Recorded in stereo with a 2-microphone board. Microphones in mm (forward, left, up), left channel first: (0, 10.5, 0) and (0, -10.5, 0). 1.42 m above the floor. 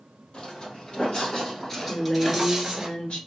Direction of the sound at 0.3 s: 55° left (ahead or behind).